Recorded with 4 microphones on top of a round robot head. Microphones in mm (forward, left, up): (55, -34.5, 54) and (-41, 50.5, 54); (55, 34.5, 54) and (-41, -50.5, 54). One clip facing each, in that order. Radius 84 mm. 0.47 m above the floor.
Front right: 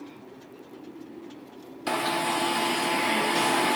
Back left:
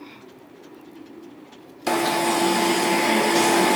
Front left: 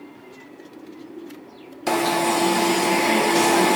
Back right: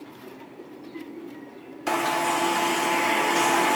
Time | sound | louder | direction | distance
1.9 | an alarm | back left 6 dB, front left 4 dB | 100° left | 1.0 m